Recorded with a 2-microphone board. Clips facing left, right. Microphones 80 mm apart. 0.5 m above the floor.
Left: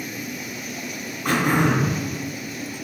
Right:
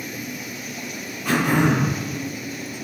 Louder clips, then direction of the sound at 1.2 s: Right 1 dB; 70° left (ahead or behind).